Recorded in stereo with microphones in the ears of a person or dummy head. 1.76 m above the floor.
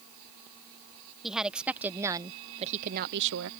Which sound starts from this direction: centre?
A woman speaking, at 1.2 s.